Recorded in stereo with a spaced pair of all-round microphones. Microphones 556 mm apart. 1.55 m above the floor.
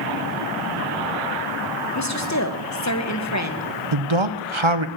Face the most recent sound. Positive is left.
turn(degrees=-55)  # may be behind; listen again after turning